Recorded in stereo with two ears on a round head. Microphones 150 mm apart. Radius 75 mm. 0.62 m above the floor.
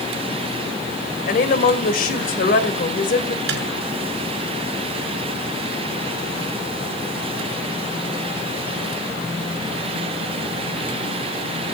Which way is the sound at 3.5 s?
75° right (ahead or behind).